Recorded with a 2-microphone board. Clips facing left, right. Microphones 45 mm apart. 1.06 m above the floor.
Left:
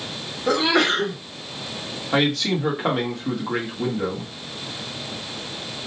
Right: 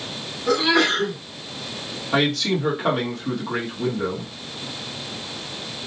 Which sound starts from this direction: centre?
A man speaking, at 2.1 s.